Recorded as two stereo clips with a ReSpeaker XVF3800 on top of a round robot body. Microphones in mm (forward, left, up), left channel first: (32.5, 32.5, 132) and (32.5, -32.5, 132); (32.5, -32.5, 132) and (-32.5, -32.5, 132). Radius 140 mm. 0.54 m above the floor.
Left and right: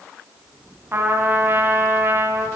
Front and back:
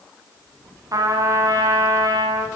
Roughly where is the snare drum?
No snare drum in this recording.